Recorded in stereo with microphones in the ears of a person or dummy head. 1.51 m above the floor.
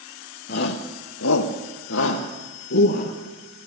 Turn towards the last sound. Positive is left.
turn(degrees=45)  # may be behind; listen again after turning